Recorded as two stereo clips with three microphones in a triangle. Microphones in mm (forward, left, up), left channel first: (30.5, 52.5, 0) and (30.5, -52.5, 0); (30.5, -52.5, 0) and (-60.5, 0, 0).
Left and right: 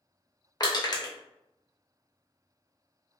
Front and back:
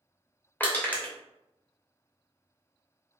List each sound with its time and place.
0.6 s crushing: 40° left, 0.6 m